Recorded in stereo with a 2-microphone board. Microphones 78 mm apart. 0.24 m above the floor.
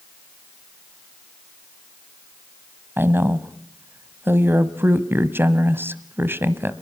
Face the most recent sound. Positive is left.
turn(degrees=-30)  # may be behind; listen again after turning